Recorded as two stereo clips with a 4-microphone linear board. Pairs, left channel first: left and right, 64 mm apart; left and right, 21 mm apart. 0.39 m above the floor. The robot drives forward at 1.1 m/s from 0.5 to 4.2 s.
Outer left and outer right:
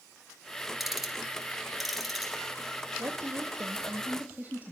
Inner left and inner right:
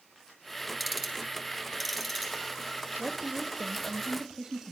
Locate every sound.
0.8 s ticking: 5° right (ahead or behind), 3 m
3.0 s a woman speaking: 50° right (ahead or behind), 1.3 m; by 4.7 s 30° right (ahead or behind), 2 m